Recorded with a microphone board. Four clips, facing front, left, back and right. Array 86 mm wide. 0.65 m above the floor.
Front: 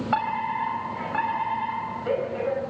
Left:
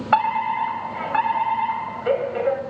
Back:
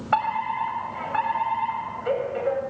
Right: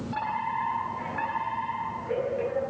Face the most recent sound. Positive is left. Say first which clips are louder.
# left 11 dB, back 3 dB
turn(degrees=100)